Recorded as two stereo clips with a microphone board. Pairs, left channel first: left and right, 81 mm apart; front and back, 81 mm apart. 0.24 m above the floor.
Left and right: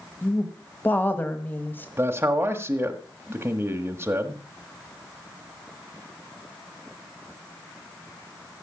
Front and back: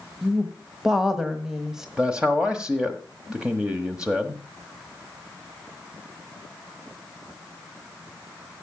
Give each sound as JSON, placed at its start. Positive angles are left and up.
{"t": 0.2, "sound": "a woman speaking", "azimuth_deg": 105, "distance_m": 1.5}
{"t": 2.0, "sound": "a man speaking", "azimuth_deg": -115, "distance_m": 1.3}